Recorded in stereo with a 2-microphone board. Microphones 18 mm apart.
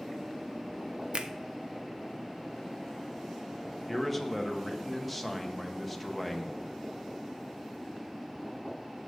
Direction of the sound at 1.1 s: 55° right (ahead or behind).